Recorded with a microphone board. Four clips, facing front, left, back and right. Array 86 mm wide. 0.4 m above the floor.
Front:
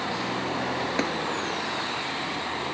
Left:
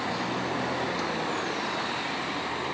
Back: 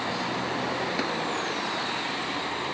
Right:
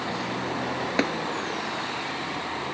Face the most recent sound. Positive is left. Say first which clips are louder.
# right 6 dB, front 4 dB
turn(degrees=-75)